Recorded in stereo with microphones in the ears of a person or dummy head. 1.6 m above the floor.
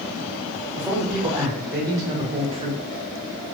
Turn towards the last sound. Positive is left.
turn(degrees=-35)  # may be behind; listen again after turning